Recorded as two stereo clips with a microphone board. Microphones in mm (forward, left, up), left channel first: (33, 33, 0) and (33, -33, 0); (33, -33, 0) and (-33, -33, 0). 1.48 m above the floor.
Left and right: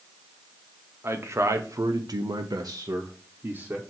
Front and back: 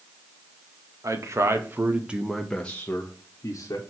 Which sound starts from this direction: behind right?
A man speaking, at 1.0 s.